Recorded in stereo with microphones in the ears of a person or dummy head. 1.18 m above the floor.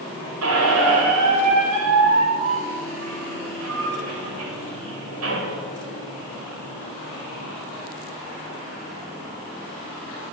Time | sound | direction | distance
0.4 | a squeak | 80° right | 1.9 m